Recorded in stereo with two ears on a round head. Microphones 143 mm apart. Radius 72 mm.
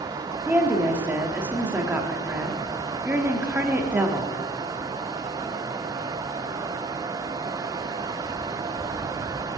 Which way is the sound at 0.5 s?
10° right (ahead or behind).